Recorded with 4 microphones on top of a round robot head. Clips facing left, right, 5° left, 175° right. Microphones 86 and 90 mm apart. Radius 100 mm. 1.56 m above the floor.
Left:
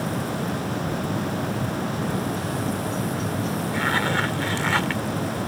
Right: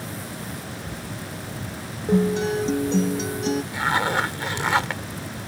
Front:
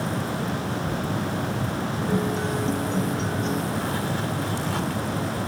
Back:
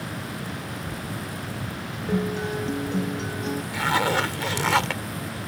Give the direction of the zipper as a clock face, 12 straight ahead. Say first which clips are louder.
Left 1 dB, back 4 dB; 6 o'clock.